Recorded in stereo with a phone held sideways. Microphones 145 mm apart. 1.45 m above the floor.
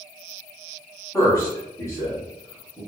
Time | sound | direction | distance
1.1 | a man speaking | 20° left (ahead or behind) | 1.3 m